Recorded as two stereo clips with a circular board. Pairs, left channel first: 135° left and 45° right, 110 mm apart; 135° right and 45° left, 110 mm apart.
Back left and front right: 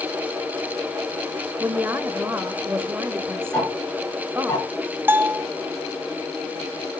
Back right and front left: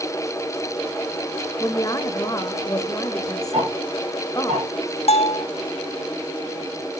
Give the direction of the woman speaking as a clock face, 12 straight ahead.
3 o'clock.